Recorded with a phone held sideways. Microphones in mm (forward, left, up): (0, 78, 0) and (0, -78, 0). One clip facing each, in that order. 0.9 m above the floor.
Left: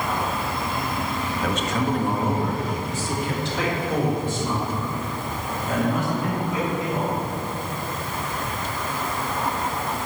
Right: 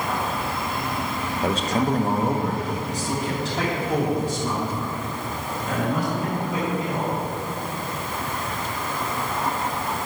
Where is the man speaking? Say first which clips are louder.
Right 3 dB; 30° right (ahead or behind), 1.0 m; by 7.1 s 35° right (ahead or behind), 7 m.